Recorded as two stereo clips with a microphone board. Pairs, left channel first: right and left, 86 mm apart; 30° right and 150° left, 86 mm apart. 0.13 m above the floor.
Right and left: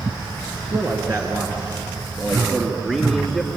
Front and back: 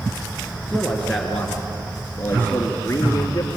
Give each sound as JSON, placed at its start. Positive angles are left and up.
{"t": 0.7, "sound": "a man speaking", "azimuth_deg": 50, "distance_m": 2.5}